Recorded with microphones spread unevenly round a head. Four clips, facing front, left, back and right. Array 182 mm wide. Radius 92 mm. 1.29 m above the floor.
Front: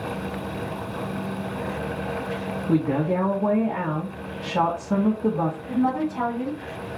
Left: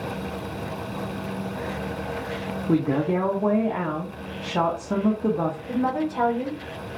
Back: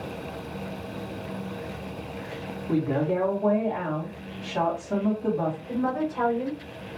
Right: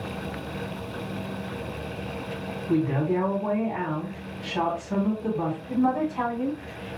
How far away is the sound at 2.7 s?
About 1.7 m.